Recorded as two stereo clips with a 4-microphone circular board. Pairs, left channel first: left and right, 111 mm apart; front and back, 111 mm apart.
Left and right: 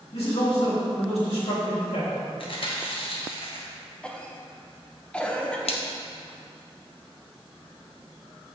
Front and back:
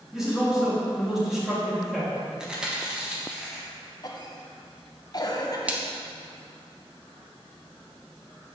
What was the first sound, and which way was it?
A man speaking, 95° left.